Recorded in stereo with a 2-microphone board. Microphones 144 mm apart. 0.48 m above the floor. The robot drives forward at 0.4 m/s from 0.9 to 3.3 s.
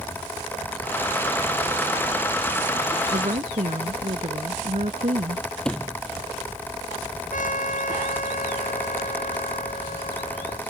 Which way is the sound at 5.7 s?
5° left (ahead or behind).